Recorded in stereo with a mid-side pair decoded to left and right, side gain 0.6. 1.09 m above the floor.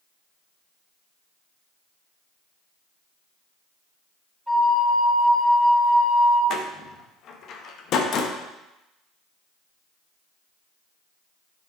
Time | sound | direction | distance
4.5 | a flute | 5° right | 1.2 m
6.5 | a door slam | 55° left | 1.0 m